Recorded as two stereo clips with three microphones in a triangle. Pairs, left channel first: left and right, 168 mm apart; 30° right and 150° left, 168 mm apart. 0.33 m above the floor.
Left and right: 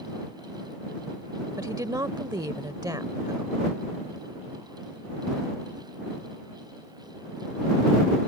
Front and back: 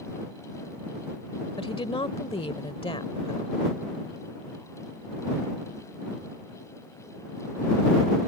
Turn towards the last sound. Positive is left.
turn(degrees=-40)